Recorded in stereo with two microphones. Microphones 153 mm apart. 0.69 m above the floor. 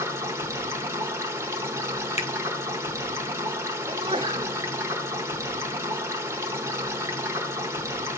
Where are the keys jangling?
I don't hear keys jangling.